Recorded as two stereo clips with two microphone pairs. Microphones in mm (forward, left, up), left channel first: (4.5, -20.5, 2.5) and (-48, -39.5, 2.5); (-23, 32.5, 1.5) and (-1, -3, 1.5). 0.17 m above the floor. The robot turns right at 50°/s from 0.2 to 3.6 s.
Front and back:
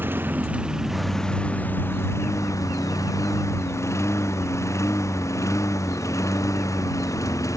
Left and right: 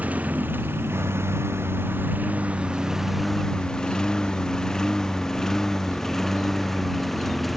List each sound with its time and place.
0.0 s a lawn mower: 110° right; by 7.6 s 35° left